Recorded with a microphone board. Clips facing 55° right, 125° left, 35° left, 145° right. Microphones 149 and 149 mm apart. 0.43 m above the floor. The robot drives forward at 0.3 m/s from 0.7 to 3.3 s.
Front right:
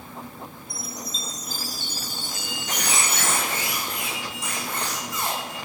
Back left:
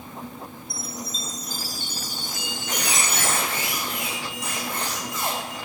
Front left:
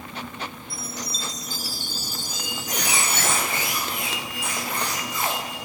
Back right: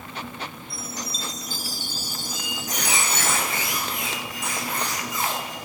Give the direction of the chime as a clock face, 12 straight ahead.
5 o'clock.